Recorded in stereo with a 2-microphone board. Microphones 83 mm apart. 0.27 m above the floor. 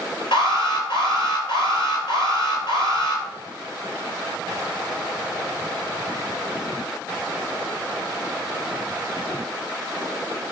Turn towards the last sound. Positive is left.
turn(degrees=75)  # may be behind; listen again after turning